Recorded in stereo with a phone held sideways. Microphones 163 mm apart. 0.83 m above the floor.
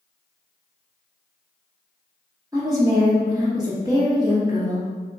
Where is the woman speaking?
20° right (ahead or behind), 0.9 m.